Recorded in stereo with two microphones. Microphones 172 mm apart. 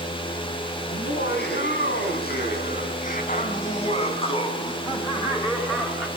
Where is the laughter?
80° left, 5.5 m; by 6.1 s 10° left (ahead or behind), 5.5 m.